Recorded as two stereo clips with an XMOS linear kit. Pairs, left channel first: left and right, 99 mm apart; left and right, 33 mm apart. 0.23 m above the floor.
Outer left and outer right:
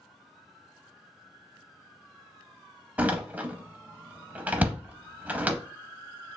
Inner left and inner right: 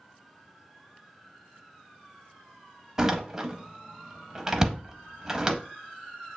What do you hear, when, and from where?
3.0 s a door slam: 15° right (ahead or behind), 0.6 m